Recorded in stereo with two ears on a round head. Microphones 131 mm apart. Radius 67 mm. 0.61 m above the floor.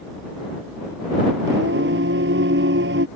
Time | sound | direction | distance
1.5 | singing | 85° right | ?